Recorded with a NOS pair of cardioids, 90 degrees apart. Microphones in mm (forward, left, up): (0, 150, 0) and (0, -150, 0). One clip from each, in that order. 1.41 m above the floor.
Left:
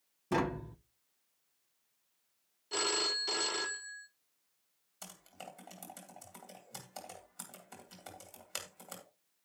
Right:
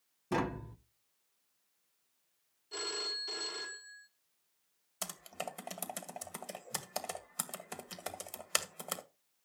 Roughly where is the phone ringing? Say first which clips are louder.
Left 5 dB; ahead left.